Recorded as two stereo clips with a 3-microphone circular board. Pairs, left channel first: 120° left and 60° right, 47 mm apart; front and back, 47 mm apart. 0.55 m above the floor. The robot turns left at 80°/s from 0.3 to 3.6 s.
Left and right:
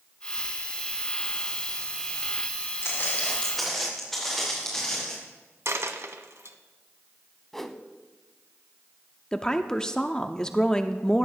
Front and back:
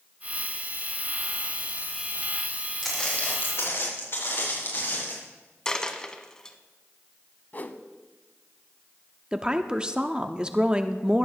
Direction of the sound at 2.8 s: 90° left.